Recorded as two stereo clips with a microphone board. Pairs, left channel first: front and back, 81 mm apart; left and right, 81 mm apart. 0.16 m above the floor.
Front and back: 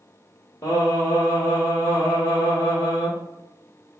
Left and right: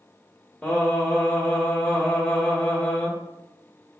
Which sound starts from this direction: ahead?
Singing, at 0.6 s.